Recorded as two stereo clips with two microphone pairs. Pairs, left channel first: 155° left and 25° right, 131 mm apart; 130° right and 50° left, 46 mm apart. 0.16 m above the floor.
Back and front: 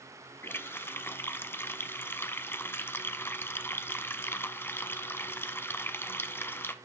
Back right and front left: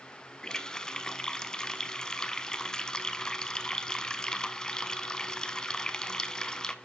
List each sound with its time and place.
0.4 s a running tap: 165° right, 0.7 m